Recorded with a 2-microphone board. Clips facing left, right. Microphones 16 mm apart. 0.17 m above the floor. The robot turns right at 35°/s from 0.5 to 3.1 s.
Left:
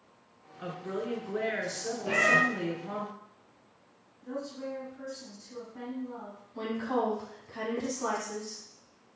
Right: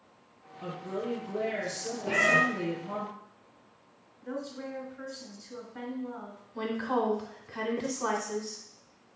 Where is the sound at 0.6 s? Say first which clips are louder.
Even; 75° left, 2.5 m; by 3.1 s 160° left, 2.5 m.